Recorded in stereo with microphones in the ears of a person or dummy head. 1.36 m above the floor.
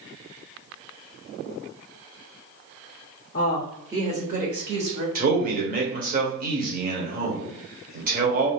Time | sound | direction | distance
3.3 | a woman speaking | 45° left (ahead or behind) | 0.6 m
5.2 | a man speaking | 45° right (ahead or behind) | 0.9 m